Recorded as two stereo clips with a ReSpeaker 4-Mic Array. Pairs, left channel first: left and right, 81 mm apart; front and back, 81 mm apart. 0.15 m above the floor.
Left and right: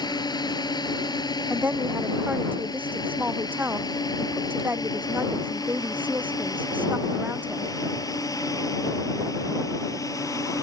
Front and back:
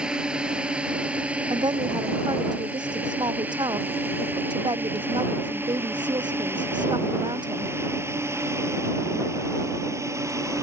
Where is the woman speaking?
160° right.